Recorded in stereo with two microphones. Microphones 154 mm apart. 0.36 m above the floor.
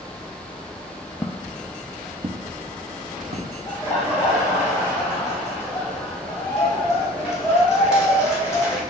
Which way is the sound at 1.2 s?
20° left (ahead or behind).